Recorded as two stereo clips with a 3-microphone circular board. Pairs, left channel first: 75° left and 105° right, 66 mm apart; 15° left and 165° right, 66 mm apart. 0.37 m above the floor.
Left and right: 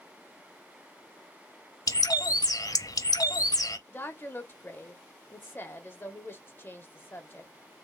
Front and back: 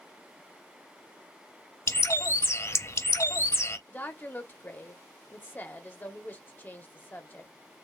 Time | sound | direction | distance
1.9 | a bird | 60° left | 0.6 m
3.9 | a woman speaking | 50° left | 1.2 m